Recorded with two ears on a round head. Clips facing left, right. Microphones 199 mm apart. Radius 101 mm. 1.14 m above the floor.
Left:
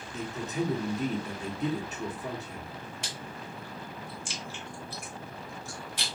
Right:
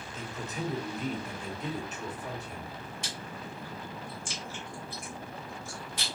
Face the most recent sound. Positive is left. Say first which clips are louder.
# even
turn(degrees=50)  # may be behind; listen again after turning